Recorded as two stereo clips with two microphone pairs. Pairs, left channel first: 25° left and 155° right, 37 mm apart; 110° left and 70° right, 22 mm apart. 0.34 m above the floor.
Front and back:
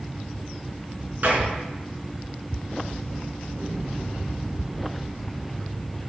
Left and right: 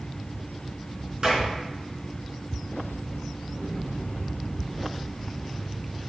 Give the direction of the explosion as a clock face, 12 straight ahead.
5 o'clock.